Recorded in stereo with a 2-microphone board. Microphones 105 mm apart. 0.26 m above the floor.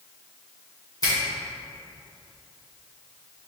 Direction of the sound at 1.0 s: 35° left (ahead or behind).